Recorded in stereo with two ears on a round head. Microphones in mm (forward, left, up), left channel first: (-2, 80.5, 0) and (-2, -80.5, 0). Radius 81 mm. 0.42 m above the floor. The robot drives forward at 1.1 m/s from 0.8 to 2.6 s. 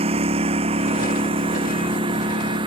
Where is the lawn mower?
35° right (ahead or behind); by 2.7 s 30° right (ahead or behind).